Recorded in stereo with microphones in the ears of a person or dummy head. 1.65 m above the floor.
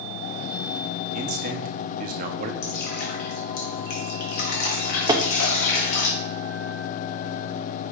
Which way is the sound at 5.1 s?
25° right (ahead or behind).